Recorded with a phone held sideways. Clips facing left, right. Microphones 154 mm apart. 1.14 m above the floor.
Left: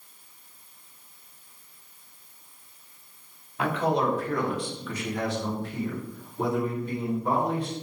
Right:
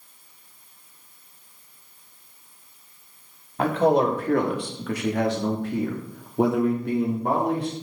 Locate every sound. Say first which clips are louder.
3.6 s a man speaking: right 6 dB; 45° right (ahead or behind), 3 m; by 7.7 s 60° right (ahead or behind), 3.5 m